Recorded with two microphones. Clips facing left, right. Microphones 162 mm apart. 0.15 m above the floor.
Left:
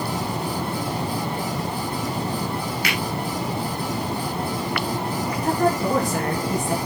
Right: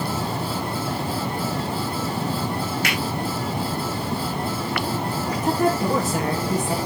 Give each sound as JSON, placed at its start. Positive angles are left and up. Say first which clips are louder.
{"t": 2.8, "sound": "a finger snap", "louder": "right 1 dB", "side_deg": -45, "distance_m": 8.0}
{"t": 5.4, "sound": "a woman speaking", "louder": "even", "side_deg": -5, "distance_m": 2.5}